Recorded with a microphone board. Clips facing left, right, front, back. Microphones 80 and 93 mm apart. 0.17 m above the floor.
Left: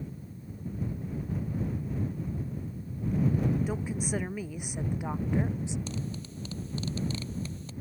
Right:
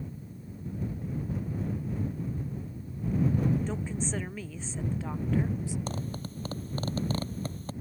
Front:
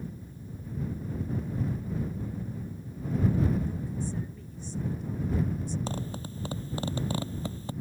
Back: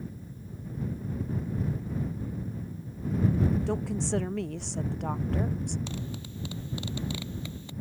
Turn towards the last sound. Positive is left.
turn(degrees=-50)